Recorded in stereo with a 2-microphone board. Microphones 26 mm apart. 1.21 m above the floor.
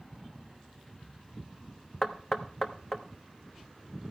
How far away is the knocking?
About 0.9 m.